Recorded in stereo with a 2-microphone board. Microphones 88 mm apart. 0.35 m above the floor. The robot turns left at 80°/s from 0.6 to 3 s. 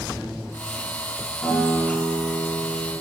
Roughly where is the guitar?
Ahead left.